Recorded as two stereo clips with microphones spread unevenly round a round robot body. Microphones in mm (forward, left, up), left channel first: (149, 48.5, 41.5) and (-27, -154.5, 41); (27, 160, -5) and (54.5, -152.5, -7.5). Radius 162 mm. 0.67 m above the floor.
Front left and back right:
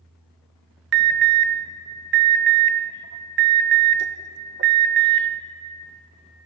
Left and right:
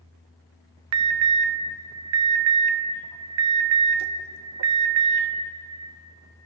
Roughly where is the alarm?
Right.